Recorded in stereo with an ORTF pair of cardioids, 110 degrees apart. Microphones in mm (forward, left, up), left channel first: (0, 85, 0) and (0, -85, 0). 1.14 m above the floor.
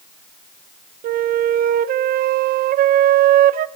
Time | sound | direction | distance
1.0 | a flute | 60° right | 0.7 m